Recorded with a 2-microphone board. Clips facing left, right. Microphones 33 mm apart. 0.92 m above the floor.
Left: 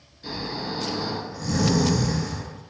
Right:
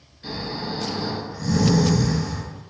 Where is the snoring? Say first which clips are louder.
Right 1 dB; 10° right (ahead or behind), 1.5 m.